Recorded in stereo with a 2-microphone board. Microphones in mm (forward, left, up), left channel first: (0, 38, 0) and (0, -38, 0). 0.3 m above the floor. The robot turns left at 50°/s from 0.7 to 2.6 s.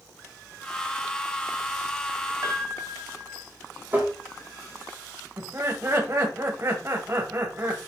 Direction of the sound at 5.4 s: 35° right (ahead or behind).